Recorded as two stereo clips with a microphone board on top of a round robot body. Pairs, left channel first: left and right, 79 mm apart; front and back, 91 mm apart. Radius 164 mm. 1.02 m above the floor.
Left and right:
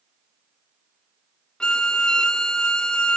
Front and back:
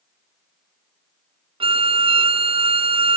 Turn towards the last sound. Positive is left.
turn(degrees=170)